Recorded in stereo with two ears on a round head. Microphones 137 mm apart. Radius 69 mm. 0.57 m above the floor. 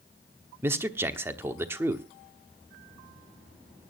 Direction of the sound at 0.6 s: 15° right (ahead or behind).